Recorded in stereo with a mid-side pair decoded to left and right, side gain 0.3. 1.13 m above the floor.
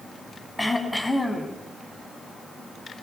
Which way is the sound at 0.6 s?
20° left.